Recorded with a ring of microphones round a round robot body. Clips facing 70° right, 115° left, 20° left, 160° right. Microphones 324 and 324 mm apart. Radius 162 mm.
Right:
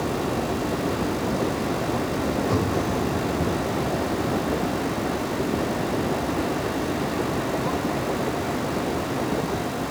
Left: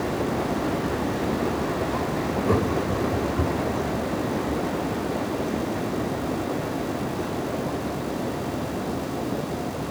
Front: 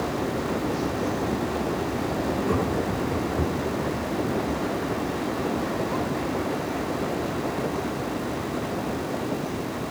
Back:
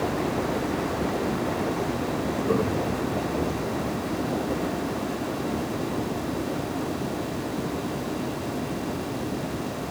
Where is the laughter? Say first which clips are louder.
Left 1 dB, back 1 dB; 95° left, 3 m; by 3.8 s 90° left, 3.5 m.